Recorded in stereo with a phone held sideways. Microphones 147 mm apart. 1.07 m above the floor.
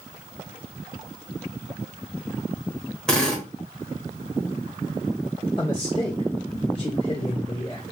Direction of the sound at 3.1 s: 5° left (ahead or behind).